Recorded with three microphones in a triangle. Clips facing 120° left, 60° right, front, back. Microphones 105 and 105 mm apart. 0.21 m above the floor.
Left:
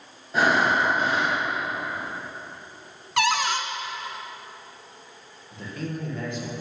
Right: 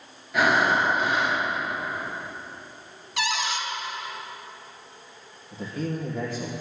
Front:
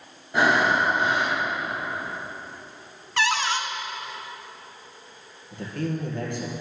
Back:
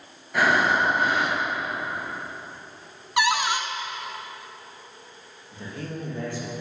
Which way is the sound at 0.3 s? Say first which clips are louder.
Even, front 1 dB; 65° left.